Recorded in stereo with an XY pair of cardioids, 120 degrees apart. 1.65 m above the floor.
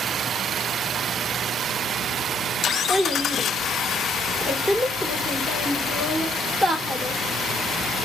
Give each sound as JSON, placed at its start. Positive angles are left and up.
{"t": 2.9, "sound": "a child speaking", "azimuth_deg": -20, "distance_m": 1.5}